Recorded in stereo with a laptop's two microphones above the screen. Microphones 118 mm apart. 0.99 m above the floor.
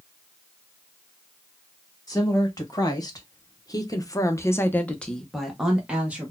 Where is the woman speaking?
35° left (ahead or behind), 1.7 m; by 6.3 s 15° right (ahead or behind), 1.1 m.